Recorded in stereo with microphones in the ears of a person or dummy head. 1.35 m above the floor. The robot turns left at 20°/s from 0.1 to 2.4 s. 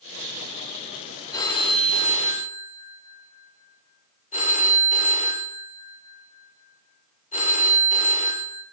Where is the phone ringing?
20° left (ahead or behind), 1.6 m; by 8.6 s 40° left (ahead or behind), 1.6 m.